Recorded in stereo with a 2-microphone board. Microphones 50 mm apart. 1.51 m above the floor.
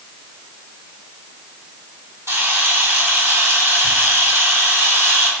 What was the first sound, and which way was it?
A camera shutter, 85° right.